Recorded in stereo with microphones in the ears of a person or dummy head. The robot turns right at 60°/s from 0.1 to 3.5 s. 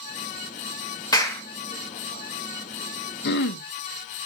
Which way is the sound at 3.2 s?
55° left (ahead or behind).